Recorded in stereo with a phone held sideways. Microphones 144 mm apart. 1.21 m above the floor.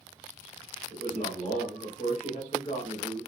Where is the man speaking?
45° left (ahead or behind), 1.9 m.